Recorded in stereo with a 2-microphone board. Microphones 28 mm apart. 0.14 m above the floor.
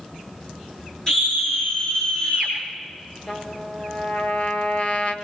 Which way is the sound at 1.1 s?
25° left (ahead or behind).